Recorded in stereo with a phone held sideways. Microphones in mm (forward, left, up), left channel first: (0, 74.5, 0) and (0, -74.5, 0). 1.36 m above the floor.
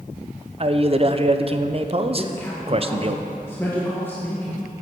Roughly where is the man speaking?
Right.